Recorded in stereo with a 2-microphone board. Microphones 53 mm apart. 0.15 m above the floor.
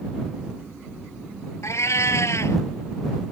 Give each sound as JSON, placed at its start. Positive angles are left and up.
{"t": 1.6, "sound": "a cat meowing", "side_deg": 75}